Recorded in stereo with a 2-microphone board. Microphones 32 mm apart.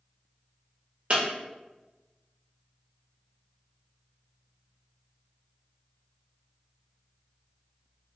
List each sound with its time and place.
1.1 s breaking glass: 40° right (ahead or behind), 0.9 m